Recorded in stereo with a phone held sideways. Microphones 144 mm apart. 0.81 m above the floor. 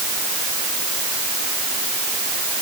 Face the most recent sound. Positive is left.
No sound to turn to.